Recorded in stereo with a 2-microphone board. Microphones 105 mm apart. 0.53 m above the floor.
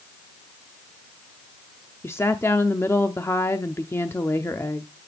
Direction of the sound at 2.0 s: 25° left (ahead or behind).